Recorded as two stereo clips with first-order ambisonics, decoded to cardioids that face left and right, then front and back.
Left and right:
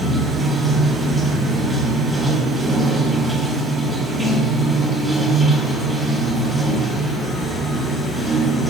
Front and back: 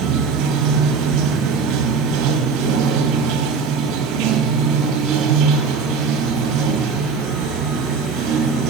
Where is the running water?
175° right, 1.0 m.